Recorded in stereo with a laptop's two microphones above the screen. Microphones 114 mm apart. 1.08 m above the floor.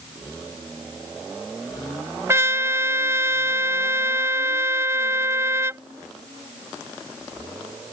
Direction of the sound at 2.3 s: 25° right (ahead or behind).